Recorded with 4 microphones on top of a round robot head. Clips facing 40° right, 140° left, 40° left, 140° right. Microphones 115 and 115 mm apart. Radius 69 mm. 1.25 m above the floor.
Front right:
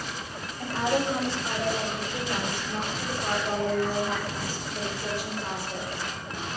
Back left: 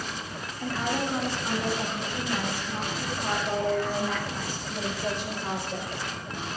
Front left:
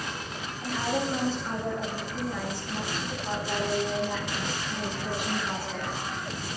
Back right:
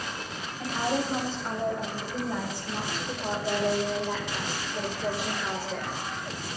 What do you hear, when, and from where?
0.6 s a woman speaking: 95° right, 6.5 m; by 5.9 s 130° right, 4.5 m